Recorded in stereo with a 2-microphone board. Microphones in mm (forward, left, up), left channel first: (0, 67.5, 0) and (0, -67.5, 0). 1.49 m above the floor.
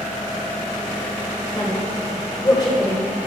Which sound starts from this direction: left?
A woman speaking, at 1.6 s.